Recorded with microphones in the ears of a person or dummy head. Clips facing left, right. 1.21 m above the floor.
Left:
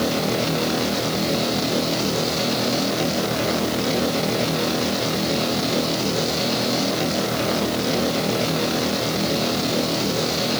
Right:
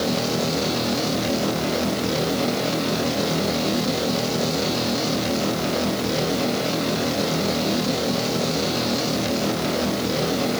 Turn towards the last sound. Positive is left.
No sound to turn to.